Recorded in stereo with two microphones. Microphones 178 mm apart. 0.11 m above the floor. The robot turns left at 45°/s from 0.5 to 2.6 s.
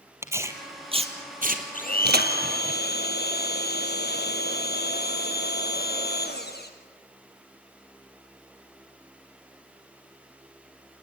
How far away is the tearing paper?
About 2 m.